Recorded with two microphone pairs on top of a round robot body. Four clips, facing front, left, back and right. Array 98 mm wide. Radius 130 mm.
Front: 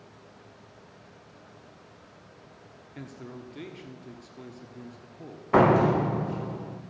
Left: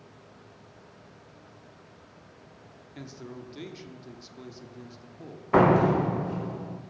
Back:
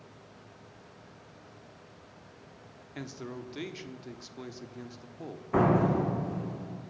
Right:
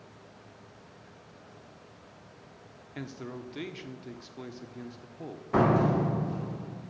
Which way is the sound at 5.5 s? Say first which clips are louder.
Left 4 dB, front 5 dB; 40° left.